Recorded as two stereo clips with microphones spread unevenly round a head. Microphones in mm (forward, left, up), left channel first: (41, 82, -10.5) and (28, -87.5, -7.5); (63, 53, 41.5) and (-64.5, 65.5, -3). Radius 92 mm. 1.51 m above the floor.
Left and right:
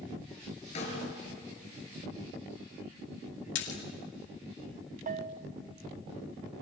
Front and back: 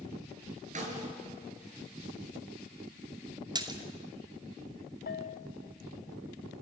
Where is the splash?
110° left, 2.5 m.